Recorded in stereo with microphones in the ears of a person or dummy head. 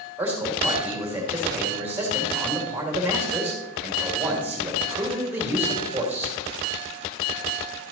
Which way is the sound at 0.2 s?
5° right (ahead or behind).